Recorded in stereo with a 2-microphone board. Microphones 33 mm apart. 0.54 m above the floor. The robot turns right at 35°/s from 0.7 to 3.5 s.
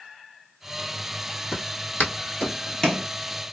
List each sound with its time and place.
1.5 s footsteps: 70° left (ahead or behind), 1.7 m; by 3.1 s 5° left (ahead or behind), 0.9 m